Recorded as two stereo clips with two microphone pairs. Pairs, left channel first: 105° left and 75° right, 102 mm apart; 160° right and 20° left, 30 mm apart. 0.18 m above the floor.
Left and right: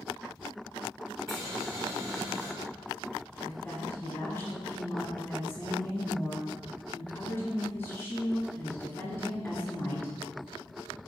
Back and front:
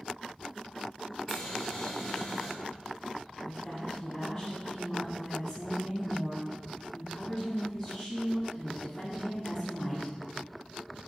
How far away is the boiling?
About 1.3 m.